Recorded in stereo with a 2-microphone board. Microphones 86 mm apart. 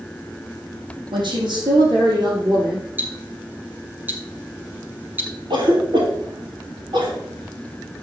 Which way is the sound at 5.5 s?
70° right (ahead or behind).